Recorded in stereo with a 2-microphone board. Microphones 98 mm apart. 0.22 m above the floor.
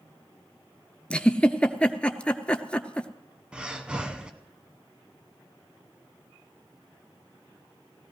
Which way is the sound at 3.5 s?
10° right (ahead or behind).